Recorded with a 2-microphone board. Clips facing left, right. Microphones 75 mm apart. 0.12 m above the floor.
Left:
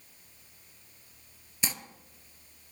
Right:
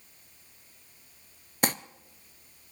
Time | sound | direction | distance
1.6 | crumpling | 50° right (ahead or behind) | 0.7 m